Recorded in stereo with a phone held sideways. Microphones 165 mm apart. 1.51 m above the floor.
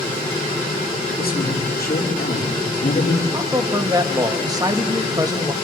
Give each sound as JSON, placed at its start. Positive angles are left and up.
{"t": 1.2, "sound": "a man speaking", "side_deg": 70, "distance_m": 5.5}
{"t": 3.3, "sound": "a man speaking", "side_deg": -20, "distance_m": 2.0}